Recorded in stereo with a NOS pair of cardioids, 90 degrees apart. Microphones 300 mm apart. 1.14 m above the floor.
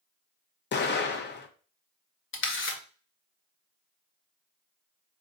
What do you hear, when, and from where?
0.7 s an explosion: 35° left, 0.8 m
2.3 s a camera shutter: 40° left, 1.0 m